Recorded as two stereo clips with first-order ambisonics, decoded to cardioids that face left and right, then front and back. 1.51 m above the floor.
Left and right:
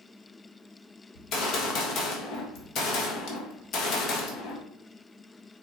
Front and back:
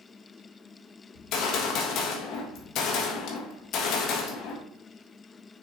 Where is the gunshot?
45° left, 1.4 m.